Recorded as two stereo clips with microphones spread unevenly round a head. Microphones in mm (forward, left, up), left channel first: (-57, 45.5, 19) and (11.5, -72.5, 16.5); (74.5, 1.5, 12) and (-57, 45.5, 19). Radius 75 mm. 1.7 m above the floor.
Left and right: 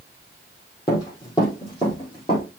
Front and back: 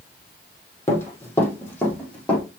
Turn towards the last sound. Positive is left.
turn(degrees=65)